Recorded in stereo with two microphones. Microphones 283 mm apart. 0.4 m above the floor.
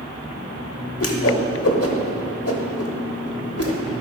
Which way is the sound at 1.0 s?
55° left (ahead or behind).